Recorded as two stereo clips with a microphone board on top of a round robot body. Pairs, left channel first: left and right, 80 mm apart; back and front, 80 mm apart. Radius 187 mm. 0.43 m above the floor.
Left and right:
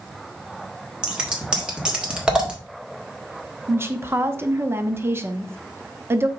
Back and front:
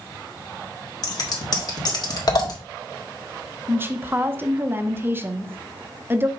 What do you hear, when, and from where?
1.0 s scissors: 165° right, 2 m
3.7 s a woman speaking: 45° right, 1.1 m